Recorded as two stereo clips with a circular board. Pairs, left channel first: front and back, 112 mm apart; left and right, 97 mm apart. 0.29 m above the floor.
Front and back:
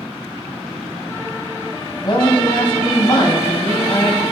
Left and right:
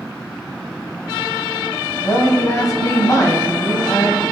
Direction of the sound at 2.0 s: 40° left.